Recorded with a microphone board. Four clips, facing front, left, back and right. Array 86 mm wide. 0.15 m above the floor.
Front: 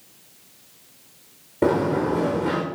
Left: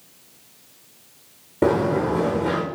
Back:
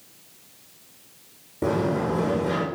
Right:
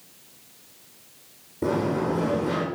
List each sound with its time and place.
1.6 s a sliding door: 60° left, 8 m